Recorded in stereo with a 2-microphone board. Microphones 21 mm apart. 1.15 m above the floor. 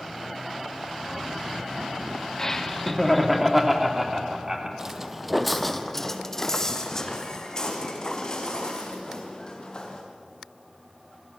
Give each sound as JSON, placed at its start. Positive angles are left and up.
{"t": 2.4, "sound": "laughter", "side_deg": 25, "distance_m": 2.0}
{"t": 4.8, "sound": "footsteps", "side_deg": -25, "distance_m": 1.3}